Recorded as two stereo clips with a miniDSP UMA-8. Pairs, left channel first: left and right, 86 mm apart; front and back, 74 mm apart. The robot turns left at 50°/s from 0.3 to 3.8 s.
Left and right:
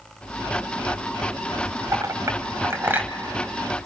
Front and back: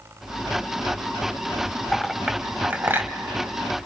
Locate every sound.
1.9 s a clink: 90° right, 0.8 m; by 3.1 s 150° right, 0.8 m